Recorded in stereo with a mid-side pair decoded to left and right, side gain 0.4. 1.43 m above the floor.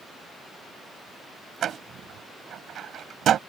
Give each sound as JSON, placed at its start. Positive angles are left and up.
{"t": 1.6, "sound": "a door slam", "azimuth_deg": -65}